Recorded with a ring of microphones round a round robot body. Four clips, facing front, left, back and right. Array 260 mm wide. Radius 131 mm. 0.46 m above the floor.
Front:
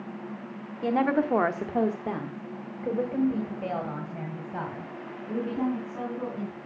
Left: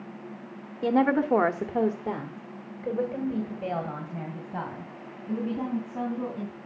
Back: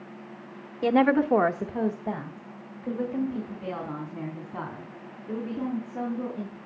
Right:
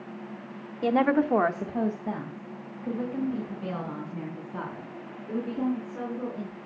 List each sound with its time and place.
0.8 s a woman speaking: 160° right, 0.8 m; by 6.5 s 30° left, 4.5 m